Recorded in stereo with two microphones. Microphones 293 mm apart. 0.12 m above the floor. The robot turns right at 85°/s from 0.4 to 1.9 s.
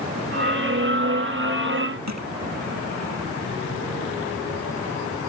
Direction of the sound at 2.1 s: 65° right (ahead or behind).